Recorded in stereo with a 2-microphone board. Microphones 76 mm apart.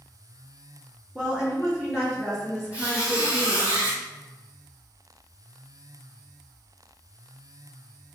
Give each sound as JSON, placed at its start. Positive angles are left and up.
{"t": 1.1, "sound": "a woman speaking", "side_deg": -15, "distance_m": 1.5}
{"t": 2.7, "sound": "a squeak", "side_deg": -15, "distance_m": 1.6}